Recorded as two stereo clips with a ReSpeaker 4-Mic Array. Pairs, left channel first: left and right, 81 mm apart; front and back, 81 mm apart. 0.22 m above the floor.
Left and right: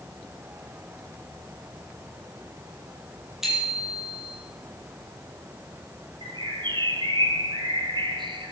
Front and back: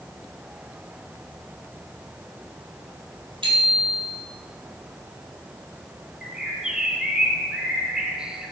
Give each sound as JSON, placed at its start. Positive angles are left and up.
{"t": 3.4, "sound": "a bicycle bell", "azimuth_deg": -175, "distance_m": 5.5}
{"t": 6.2, "sound": "a bird", "azimuth_deg": -100, "distance_m": 1.8}